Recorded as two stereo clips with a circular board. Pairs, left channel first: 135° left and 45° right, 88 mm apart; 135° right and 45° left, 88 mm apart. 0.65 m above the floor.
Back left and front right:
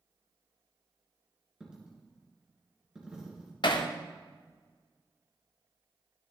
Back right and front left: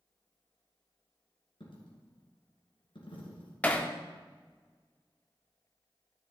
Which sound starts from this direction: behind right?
A dropped coin, at 1.6 s.